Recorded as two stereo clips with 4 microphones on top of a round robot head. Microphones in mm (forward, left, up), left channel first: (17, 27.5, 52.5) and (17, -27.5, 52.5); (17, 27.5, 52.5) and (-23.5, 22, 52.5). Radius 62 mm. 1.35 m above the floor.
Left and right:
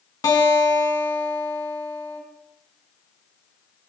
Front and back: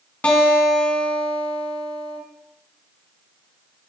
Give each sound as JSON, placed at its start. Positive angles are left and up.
{"t": 0.2, "sound": "a guitar", "azimuth_deg": 70, "distance_m": 5.0}